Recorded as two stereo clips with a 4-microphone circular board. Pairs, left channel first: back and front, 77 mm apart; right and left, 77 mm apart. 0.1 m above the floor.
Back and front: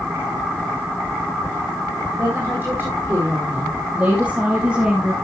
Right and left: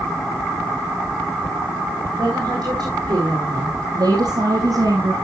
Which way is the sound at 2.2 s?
60° left.